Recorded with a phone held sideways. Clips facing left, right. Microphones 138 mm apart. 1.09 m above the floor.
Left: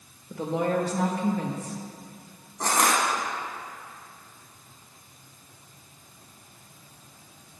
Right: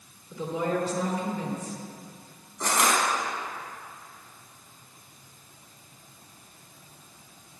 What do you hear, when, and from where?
0.3 s a woman speaking: 60° left (ahead or behind), 1.3 m
2.6 s crushing: 40° left (ahead or behind), 1.4 m